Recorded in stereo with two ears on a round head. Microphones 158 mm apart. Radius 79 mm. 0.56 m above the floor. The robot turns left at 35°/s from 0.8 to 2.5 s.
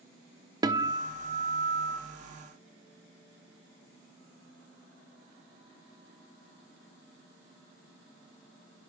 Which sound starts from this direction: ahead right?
A guitar, at 0.6 s.